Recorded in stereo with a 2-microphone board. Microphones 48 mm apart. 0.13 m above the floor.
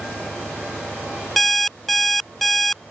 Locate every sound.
0.0 s an engine running: 70° left (ahead or behind)
1.4 s an alarm clock: 5° left (ahead or behind)